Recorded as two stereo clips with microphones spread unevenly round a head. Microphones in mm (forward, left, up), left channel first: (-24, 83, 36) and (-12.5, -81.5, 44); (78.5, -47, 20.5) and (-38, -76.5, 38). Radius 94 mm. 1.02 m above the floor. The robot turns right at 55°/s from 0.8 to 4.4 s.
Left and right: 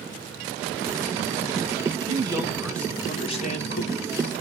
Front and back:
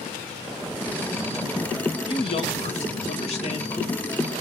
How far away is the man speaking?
About 1.3 m.